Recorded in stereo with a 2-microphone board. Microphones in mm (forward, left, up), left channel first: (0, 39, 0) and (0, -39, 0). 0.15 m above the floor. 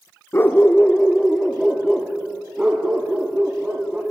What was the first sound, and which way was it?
A dog barking, 35° left (ahead or behind).